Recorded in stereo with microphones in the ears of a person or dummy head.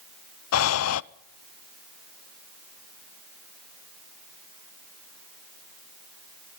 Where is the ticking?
No ticking in this recording.